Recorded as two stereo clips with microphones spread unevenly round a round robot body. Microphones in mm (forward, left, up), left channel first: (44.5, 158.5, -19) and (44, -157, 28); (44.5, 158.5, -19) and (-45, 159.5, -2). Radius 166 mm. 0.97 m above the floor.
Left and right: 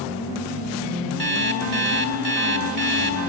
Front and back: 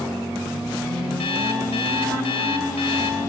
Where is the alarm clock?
35° right, 2 m.